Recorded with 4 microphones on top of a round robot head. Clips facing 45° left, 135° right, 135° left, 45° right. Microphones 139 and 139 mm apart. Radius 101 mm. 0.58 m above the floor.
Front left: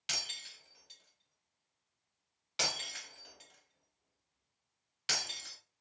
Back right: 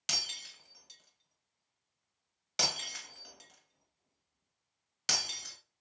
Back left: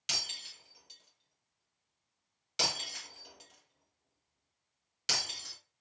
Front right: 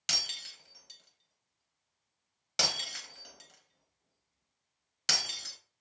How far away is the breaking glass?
About 1.3 m.